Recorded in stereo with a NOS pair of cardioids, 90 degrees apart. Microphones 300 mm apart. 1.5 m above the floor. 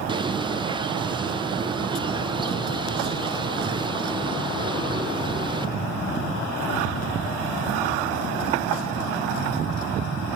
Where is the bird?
15° right, 1.5 m.